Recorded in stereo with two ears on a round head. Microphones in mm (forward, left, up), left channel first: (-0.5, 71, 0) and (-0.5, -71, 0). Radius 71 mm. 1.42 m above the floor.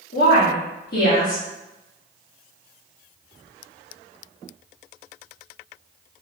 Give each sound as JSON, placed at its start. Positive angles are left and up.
{"t": 0.1, "sound": "a woman speaking", "side_deg": 60, "distance_m": 1.1}